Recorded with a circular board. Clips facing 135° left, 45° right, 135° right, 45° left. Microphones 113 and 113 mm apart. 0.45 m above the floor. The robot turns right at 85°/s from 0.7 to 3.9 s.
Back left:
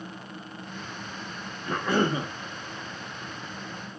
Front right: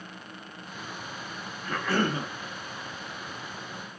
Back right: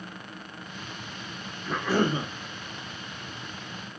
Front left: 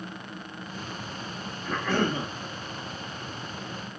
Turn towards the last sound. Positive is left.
turn(degrees=-30)